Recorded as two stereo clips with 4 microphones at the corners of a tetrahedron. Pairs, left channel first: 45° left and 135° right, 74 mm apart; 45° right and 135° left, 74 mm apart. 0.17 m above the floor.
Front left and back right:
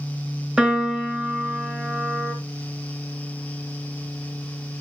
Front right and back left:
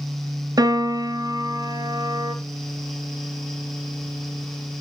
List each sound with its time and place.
0.6 s a piano: 150° left, 1.0 m